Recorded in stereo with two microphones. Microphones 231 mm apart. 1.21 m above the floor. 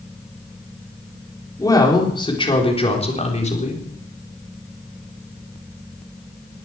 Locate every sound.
1.6 s a woman speaking: 15° left (ahead or behind), 4 m; by 3.8 s 30° left (ahead or behind), 4 m